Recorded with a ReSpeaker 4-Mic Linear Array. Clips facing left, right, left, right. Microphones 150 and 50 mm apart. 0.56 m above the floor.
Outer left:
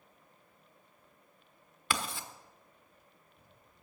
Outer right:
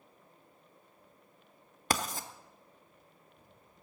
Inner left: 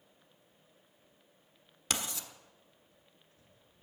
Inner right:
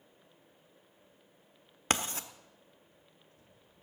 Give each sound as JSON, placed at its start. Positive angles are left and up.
{"t": 1.9, "sound": "writing", "side_deg": -45, "distance_m": 1.0}